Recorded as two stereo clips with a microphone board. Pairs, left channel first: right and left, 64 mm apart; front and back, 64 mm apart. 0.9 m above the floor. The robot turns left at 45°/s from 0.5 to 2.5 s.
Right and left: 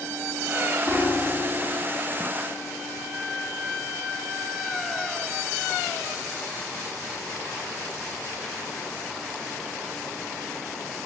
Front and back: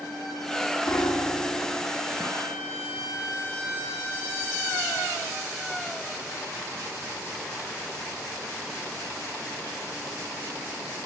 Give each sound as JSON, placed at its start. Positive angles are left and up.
{"t": 0.9, "sound": "a piano", "azimuth_deg": 5, "distance_m": 2.5}